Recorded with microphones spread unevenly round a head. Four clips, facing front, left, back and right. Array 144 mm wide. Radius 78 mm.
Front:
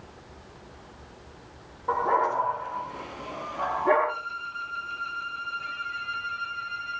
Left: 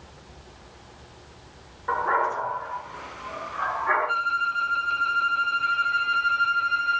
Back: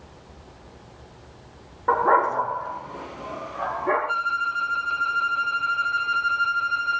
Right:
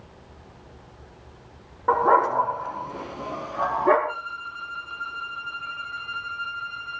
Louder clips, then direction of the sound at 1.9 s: Right 5 dB, back 5 dB; 135° right.